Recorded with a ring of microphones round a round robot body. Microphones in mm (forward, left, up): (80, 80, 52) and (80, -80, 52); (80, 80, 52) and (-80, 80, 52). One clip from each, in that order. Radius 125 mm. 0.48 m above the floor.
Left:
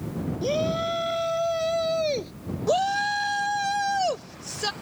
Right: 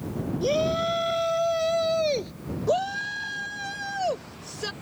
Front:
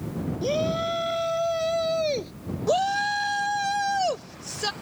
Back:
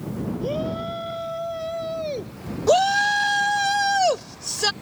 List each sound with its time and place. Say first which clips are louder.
0.4 s a shout: right 1 dB, front 3 dB; 15° right; by 2.3 s 5° right
2.7 s a shout: left 3 dB, back 6 dB; 155° left